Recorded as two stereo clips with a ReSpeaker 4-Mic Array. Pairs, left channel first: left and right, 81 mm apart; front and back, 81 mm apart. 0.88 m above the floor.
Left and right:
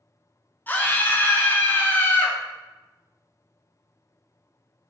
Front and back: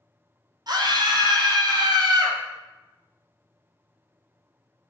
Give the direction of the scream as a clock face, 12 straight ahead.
7 o'clock.